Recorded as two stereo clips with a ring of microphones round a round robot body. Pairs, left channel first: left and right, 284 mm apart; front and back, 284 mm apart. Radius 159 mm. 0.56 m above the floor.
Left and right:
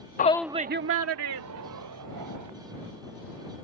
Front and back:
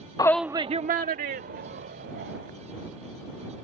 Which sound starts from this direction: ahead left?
A shout, at 0.2 s.